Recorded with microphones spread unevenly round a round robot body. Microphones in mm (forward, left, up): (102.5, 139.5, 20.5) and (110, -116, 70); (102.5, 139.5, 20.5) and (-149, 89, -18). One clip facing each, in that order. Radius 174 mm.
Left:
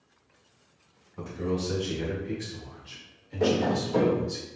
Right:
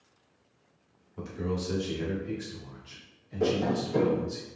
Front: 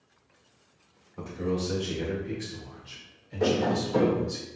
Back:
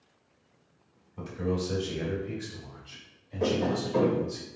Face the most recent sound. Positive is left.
turn(degrees=-10)